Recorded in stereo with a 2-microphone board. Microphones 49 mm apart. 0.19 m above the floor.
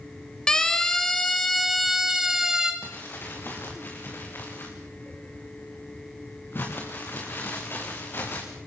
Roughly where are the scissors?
I don't hear scissors.